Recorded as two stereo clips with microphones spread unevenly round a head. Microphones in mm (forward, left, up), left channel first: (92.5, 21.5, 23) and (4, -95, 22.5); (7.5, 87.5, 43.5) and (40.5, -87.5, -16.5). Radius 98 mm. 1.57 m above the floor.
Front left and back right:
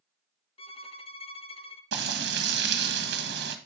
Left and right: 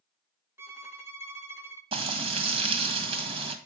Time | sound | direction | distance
0.6 | a violin | 5° left | 1.2 m
1.9 | frying | 150° right | 1.6 m